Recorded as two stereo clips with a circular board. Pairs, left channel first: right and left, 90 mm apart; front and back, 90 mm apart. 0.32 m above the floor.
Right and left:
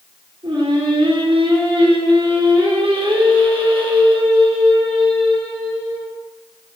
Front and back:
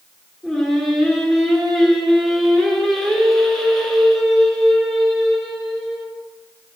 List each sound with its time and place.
0.4 s singing: 85° left, 3.5 m